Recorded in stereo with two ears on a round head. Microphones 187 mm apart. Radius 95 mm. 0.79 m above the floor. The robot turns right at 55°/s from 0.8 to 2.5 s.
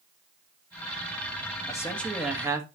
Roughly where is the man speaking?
Behind left.